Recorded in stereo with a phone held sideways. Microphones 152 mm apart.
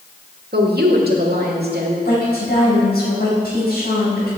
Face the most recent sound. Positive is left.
turn(degrees=85)